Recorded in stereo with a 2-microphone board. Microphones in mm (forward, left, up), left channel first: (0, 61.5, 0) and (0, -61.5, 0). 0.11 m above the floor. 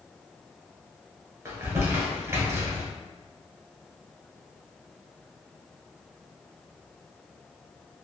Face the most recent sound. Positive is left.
turn(degrees=-25)  # may be behind; listen again after turning